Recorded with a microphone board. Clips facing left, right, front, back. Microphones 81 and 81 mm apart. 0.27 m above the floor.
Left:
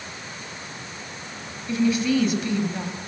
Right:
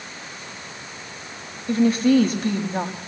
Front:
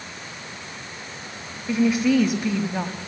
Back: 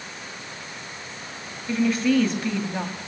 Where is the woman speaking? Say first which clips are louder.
Right 4 dB, front 2 dB; 80° right, 1.6 m.